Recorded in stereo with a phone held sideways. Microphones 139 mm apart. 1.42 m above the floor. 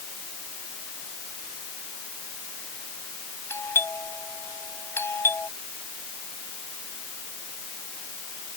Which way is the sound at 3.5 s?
15° left (ahead or behind).